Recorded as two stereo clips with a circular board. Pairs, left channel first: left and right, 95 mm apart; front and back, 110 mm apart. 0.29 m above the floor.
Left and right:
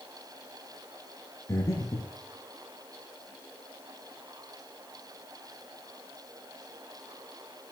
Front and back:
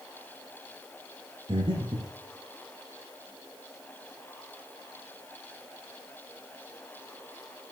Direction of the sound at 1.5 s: 145° left.